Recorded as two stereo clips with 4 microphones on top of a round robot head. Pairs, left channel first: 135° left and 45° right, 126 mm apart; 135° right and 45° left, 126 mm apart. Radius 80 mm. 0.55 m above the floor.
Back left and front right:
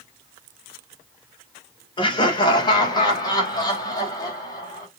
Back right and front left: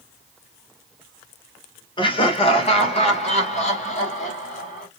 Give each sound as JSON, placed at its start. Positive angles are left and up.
{"t": 2.0, "sound": "laughter", "azimuth_deg": 180, "distance_m": 2.0}